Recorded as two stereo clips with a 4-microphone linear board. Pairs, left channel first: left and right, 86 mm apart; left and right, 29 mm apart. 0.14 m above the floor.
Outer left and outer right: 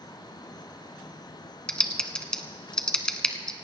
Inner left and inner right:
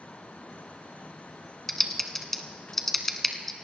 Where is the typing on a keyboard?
10° left (ahead or behind), 1.1 m.